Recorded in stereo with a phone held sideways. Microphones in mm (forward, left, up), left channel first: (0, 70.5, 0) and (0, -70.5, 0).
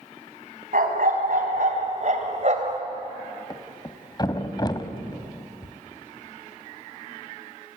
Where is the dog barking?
75° right (ahead or behind), 4 m; by 2.8 s 50° right (ahead or behind), 2.5 m.